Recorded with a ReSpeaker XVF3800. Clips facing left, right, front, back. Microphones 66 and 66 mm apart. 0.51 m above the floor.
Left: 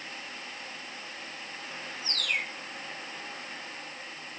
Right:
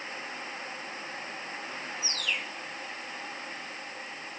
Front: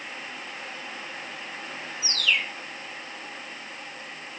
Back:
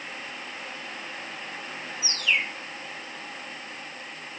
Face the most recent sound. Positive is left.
turn(degrees=120)